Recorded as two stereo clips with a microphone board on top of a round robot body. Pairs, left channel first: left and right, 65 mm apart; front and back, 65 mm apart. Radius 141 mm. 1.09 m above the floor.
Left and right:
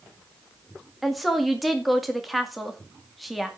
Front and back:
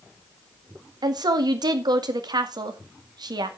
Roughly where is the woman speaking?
Behind.